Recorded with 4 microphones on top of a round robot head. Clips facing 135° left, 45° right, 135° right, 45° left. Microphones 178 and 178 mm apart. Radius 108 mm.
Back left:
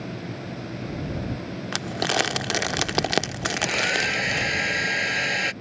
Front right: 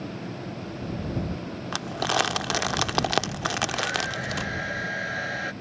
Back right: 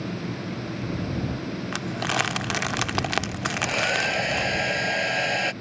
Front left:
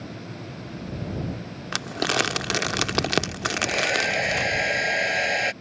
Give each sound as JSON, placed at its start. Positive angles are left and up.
{"t": 1.7, "sound": "crumpling", "azimuth_deg": 70}
{"t": 3.5, "sound": "a hair dryer", "azimuth_deg": 125}